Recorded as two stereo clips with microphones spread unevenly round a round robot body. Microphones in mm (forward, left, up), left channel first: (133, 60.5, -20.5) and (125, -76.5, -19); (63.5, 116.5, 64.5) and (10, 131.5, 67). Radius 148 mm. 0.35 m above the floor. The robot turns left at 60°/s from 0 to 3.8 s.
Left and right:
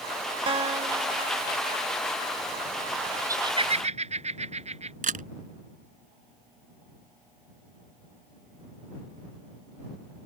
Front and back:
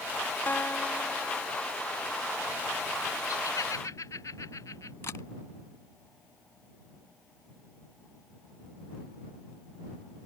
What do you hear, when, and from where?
0.5 s a guitar: 55° right; by 1.8 s 130° right
3.3 s laughter: 25° right; by 4.9 s 60° right
5.0 s a camera shutter: 70° right